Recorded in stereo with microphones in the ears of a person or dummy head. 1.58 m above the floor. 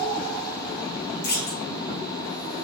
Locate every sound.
1.2 s a clunk: 50° left (ahead or behind), 3.5 m